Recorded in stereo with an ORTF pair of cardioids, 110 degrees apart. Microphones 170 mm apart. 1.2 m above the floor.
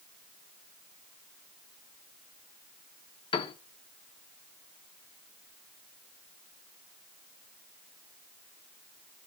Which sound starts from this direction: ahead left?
A piano, at 3.3 s.